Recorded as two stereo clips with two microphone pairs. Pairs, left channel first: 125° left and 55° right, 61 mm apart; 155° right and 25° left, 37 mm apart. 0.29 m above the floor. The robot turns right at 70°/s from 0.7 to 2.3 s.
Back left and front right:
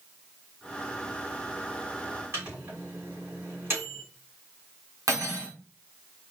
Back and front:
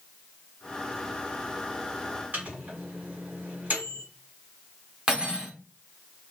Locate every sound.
2.3 s a microwave: 10° right, 2.5 m
5.1 s cutlery clinking: 40° right, 1.5 m